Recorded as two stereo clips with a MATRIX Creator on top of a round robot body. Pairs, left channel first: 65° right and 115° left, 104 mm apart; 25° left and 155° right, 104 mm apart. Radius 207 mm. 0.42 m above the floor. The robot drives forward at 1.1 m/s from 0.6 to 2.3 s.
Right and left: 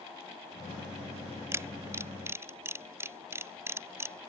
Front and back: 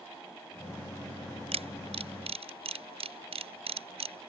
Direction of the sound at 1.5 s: Straight behind.